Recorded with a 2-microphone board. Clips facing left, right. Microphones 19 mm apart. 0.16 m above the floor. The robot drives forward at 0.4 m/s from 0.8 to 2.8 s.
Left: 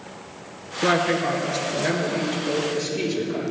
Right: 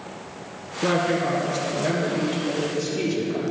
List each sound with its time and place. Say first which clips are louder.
0.8 s a woman speaking: left 1 dB; 35° left (ahead or behind), 2.5 m; by 3.5 s 25° left (ahead or behind), 3 m